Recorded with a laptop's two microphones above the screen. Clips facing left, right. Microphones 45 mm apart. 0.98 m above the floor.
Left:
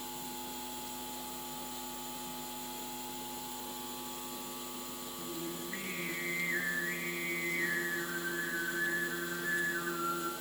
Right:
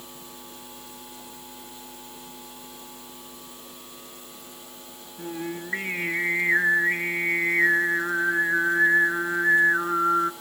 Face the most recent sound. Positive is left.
turn(degrees=-75)  # may be behind; listen again after turning